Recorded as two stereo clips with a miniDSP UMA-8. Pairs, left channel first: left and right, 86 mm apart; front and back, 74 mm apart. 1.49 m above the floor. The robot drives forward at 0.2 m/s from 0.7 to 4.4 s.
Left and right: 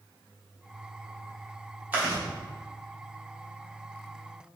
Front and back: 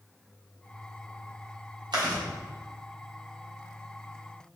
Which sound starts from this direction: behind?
Chewing, at 1.9 s.